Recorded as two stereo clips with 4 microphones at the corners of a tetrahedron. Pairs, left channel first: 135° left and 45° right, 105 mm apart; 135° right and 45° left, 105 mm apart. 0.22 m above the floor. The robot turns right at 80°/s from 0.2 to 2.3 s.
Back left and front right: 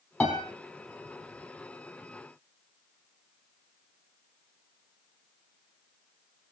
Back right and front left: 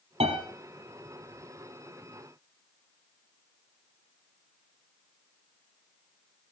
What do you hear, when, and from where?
0.2 s a piano: 60° left, 4 m; by 0.4 s 80° left, 4 m